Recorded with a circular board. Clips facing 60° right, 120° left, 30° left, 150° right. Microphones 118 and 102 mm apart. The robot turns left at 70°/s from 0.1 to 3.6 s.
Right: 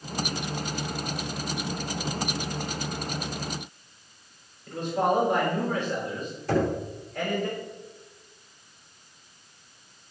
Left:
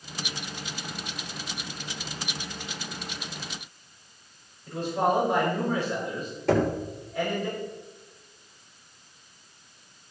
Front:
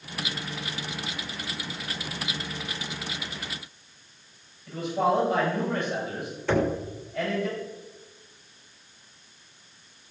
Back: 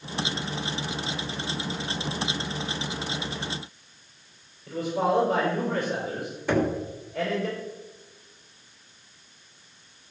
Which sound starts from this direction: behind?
A man speaking, at 4.7 s.